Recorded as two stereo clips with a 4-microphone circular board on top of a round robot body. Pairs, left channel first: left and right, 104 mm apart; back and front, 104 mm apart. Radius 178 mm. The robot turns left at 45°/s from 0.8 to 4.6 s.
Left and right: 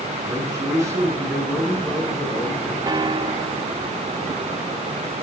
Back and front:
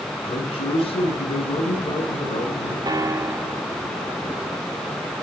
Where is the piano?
45° right, 1.2 m; by 3.7 s 85° right, 1.2 m.